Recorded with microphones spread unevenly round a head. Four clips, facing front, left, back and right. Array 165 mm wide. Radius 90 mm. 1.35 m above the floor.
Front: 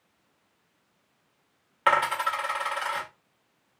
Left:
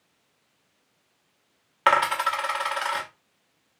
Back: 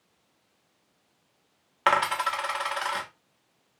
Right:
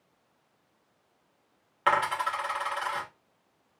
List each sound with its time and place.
1.9 s a dropped coin: 165° left, 0.9 m